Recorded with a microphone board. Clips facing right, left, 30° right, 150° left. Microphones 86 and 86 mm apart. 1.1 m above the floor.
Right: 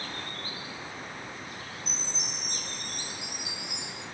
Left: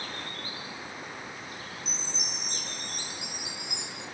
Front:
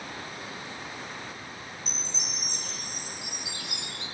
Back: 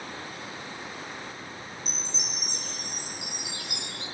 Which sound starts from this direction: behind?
A chime, at 1.9 s.